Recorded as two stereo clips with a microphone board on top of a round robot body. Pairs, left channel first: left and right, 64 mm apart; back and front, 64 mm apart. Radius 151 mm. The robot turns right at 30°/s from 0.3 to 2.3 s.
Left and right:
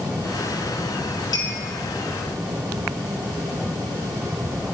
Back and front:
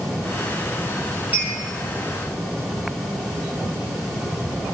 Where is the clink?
70° left, 5.5 m; by 1.5 s 75° left, 5.5 m.